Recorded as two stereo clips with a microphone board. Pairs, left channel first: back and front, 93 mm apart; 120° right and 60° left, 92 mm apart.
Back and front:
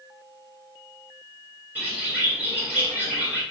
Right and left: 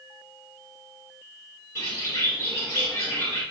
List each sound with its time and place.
1.8 s a bird: 70° right, 1.8 m